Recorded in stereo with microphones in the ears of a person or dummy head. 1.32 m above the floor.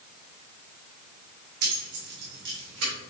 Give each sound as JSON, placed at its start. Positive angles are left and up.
{"t": 1.6, "sound": "keys jangling", "side_deg": -50, "distance_m": 2.0}